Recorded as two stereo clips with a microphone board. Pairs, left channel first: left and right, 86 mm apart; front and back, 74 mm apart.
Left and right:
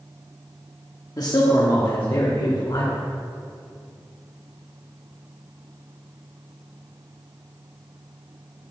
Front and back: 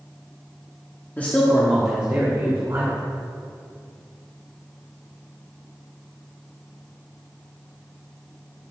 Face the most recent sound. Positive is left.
turn(degrees=125)